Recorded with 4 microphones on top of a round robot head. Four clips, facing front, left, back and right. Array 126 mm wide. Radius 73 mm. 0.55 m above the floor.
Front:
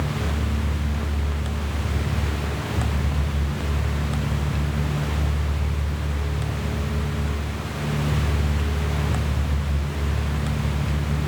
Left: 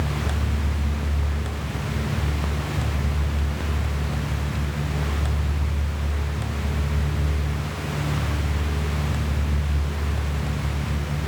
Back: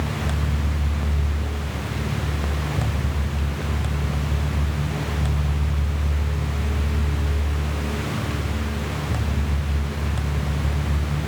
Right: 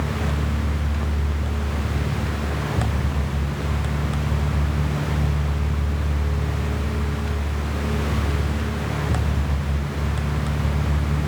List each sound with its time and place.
Only background noise.